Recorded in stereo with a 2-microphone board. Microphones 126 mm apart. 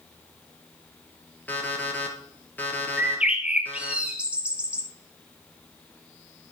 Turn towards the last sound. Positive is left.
turn(degrees=-10)  # may be behind; listen again after turning